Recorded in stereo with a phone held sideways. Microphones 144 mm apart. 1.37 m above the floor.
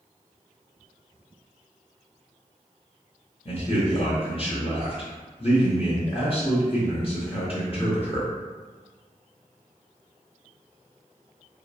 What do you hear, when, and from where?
3.5 s a man speaking: 45° left (ahead or behind), 0.6 m